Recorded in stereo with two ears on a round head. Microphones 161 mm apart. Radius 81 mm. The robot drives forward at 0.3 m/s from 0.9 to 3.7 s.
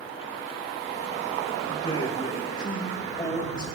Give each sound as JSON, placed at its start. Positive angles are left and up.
{"t": 1.7, "sound": "a man speaking", "side_deg": 30, "distance_m": 2.0}